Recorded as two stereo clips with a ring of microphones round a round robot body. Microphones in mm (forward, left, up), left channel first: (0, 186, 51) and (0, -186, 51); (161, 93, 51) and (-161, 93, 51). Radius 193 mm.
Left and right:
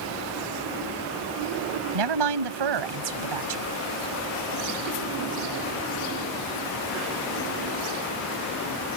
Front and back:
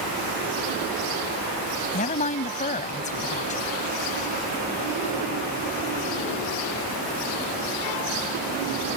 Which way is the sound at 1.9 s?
70° right.